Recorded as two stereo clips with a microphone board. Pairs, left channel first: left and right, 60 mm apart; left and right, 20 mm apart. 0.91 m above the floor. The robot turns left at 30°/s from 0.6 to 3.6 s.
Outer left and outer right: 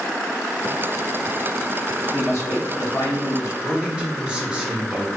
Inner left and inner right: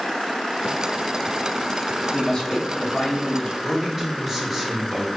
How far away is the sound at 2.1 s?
About 1.4 m.